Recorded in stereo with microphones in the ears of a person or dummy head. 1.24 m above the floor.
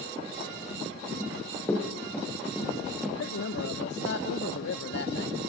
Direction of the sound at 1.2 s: 20° left (ahead or behind).